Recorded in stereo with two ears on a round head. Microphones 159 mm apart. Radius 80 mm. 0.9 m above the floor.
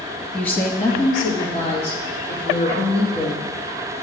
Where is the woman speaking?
5° left (ahead or behind), 1.1 m; by 3.4 s 35° left (ahead or behind), 4.5 m.